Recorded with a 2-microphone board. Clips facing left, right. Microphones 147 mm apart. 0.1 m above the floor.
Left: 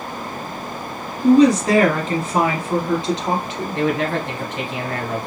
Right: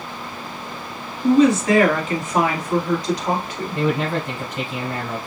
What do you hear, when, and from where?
1.2 s a woman speaking: 40° left (ahead or behind), 1.7 m; by 3.8 s 20° left (ahead or behind), 2.0 m
3.8 s a man speaking: 10° right (ahead or behind), 2 m